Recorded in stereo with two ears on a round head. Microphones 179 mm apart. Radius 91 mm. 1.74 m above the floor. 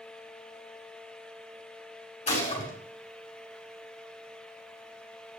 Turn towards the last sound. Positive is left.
turn(degrees=40)  # may be behind; listen again after turning